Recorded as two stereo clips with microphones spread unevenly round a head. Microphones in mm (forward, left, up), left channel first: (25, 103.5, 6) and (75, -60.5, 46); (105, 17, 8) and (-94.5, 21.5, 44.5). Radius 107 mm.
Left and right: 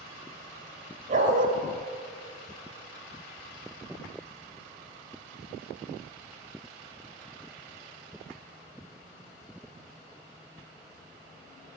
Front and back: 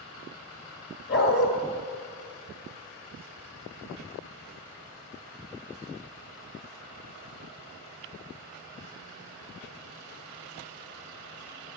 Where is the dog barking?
45° right, 2 m.